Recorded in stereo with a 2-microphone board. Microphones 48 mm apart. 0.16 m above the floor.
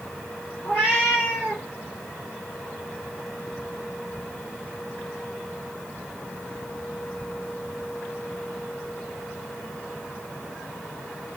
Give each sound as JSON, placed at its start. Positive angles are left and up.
{"t": 0.6, "sound": "a cat meowing", "side_deg": 25, "distance_m": 4.5}